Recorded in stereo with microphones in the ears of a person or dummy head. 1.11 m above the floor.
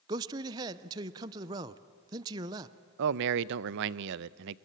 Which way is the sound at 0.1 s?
20° right (ahead or behind).